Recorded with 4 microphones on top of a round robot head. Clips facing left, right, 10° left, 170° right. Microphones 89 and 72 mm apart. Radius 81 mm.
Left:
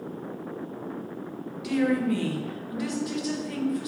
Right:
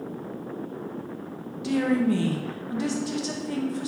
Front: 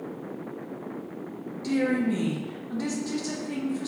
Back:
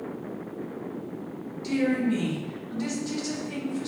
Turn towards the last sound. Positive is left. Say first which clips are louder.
# right 1 dB, even
turn(degrees=-35)